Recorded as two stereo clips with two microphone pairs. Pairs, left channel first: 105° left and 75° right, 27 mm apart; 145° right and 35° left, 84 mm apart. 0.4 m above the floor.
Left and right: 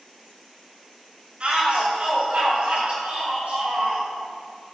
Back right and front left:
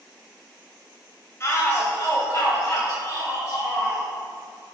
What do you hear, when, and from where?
1.4 s a shout: 95° right, 2.5 m